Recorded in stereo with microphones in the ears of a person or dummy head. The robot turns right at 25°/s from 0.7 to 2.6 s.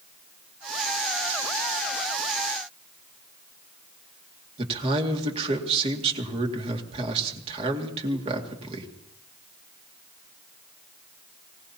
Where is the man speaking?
30° right (ahead or behind), 2 m.